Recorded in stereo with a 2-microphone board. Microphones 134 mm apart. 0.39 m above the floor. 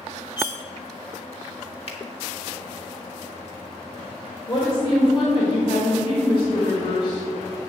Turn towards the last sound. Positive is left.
turn(degrees=40)  # may be behind; listen again after turning